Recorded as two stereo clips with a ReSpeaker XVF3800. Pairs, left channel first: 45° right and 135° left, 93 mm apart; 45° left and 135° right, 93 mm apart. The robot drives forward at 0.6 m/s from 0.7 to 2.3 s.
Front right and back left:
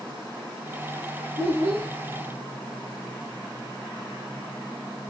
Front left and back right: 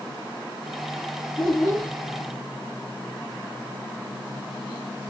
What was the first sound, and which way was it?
A child speaking, 135° left.